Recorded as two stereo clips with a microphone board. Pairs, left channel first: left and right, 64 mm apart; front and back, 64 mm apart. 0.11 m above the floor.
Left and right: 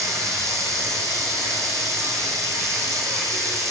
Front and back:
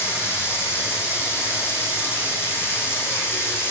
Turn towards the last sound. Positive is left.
turn(degrees=-55)